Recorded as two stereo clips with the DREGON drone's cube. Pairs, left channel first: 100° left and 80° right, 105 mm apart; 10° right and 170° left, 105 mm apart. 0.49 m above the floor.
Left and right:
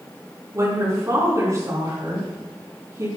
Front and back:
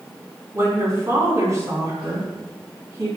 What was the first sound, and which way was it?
A woman speaking, 135° right.